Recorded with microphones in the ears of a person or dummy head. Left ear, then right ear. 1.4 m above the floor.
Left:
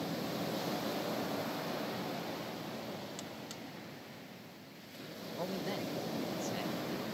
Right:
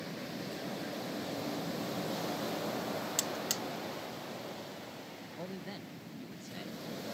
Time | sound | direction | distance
3.2 | a buzzer | 40° right (ahead or behind) | ?
5.4 | a man speaking | 30° left (ahead or behind) | ?